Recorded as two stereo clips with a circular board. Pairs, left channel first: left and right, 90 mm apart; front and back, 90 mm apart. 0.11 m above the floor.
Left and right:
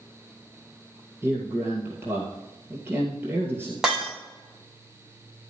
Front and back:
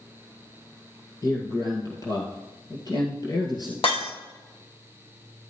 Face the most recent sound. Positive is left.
turn(degrees=-5)